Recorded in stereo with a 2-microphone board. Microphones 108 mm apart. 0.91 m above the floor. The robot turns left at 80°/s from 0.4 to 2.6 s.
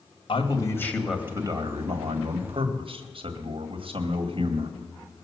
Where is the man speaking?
50° left, 1.7 m; by 4.8 s 125° right, 1.7 m.